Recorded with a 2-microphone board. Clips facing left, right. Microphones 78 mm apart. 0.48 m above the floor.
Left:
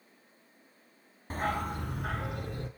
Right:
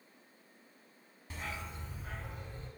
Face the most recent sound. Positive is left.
turn(degrees=80)